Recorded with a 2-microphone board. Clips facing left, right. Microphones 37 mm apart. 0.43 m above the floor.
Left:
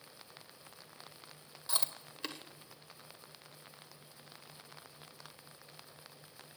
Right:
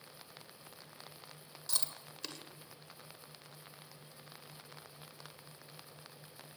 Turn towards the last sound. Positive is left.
turn(degrees=20)  # may be behind; listen again after turning